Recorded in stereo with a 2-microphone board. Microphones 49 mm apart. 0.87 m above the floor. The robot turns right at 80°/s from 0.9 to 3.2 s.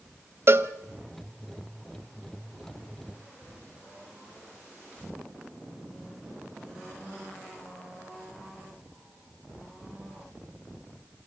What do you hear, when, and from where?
0.5 s a cowbell: 50° right (ahead or behind), 0.8 m